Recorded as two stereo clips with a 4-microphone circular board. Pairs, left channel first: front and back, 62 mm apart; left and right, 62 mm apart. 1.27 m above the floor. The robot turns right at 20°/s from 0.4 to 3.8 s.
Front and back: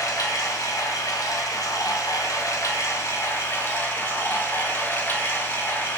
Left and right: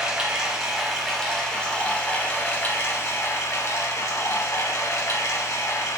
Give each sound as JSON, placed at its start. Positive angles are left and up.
{"t": 0.0, "sound": "running water", "azimuth_deg": -10, "distance_m": 1.5}